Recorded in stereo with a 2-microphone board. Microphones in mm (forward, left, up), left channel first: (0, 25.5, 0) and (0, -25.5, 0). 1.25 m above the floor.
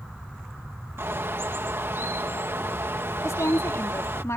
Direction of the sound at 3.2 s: 70° left (ahead or behind).